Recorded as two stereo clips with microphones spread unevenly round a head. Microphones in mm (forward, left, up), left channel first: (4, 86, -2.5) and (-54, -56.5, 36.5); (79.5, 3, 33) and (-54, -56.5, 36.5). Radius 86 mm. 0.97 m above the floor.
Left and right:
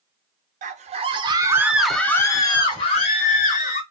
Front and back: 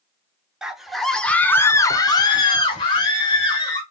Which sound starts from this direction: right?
A scream, at 0.6 s.